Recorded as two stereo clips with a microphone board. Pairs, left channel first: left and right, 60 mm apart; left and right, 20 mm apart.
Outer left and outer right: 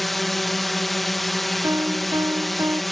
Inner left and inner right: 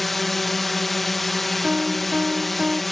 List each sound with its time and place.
0.0 s a drone: 5° left (ahead or behind)
1.6 s a piano: 75° right (ahead or behind)